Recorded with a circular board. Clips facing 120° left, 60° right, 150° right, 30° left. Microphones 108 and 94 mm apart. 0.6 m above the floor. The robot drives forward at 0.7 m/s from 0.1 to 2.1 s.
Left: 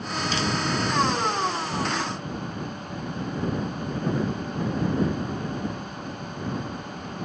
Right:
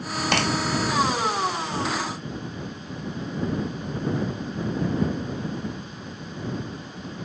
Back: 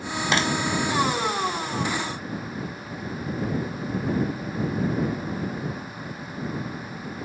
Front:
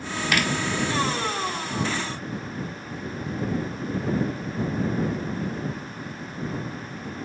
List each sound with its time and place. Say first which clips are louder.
0.3 s a clap: right 4 dB, back 1 dB; 85° right